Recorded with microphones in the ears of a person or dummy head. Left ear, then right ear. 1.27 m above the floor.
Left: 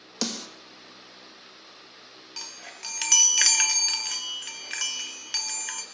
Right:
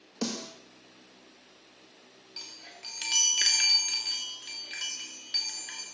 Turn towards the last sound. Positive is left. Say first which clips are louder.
# left 4 dB
turn(degrees=50)  # may be behind; listen again after turning